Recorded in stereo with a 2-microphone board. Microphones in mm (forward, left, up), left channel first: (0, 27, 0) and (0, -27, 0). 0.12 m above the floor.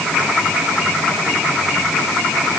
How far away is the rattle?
I don't hear a rattle.